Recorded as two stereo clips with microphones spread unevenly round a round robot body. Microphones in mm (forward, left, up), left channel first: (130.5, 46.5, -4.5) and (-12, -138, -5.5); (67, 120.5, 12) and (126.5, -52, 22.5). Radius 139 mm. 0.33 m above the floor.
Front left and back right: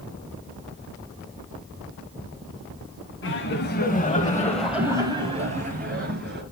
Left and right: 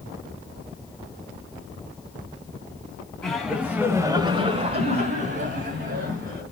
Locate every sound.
3.2 s laughter: 35° left, 2.5 m; by 6.4 s 85° right, 4 m